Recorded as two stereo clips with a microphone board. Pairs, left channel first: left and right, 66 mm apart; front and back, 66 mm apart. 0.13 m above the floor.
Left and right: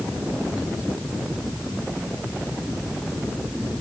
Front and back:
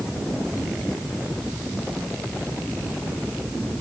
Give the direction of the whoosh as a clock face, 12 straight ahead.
No whoosh in this recording.